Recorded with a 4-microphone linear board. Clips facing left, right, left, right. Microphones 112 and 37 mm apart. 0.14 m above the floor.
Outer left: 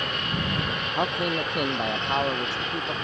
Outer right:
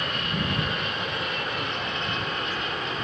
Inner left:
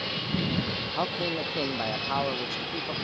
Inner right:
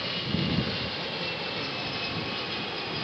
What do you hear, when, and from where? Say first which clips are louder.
0.9 s a man speaking: outer left 5 dB, inner left 4 dB; 55° left (ahead or behind); by 2.9 s 75° left (ahead or behind)